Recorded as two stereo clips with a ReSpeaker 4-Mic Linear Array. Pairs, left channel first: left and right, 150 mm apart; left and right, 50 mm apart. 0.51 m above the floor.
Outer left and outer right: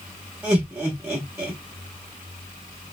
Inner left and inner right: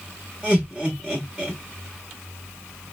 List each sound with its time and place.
0.4 s laughter: 15° right (ahead or behind), 1.0 m